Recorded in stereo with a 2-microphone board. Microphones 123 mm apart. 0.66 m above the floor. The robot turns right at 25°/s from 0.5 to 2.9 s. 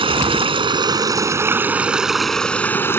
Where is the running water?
40° right; by 3.0 s 20° left.